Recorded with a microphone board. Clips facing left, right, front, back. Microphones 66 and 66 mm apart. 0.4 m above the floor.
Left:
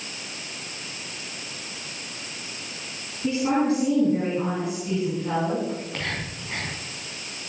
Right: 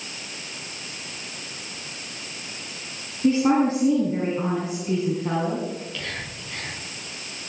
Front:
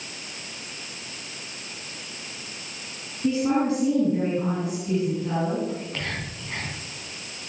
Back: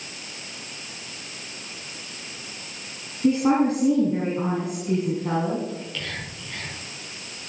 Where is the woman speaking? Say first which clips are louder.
Right 3 dB, back 3 dB; 145° right, 8.5 m.